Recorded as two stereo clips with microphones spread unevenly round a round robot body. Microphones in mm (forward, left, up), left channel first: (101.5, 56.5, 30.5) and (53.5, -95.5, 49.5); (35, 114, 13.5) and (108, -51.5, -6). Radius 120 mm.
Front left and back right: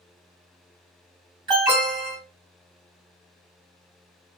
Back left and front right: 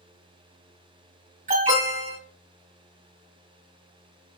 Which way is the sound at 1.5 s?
45° right.